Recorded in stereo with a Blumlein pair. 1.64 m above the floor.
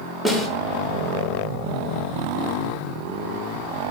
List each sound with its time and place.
0.2 s a snare drum: straight ahead, 0.6 m